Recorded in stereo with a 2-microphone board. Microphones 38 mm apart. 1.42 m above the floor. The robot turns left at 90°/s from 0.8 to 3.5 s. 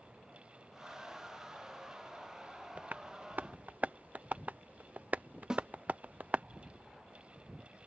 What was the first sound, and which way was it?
Tapping, 35° right (ahead or behind).